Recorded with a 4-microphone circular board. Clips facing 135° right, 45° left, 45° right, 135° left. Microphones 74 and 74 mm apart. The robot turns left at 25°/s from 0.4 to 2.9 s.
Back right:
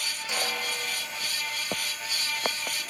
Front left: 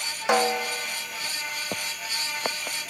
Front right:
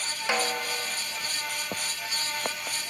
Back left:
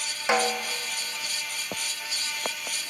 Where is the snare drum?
65° left, 1.6 m; by 0.7 s 55° left, 1.6 m.